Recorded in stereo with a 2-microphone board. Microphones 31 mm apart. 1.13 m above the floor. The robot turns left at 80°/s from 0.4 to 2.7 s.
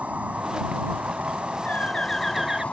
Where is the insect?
55° right; by 2.7 s 125° left.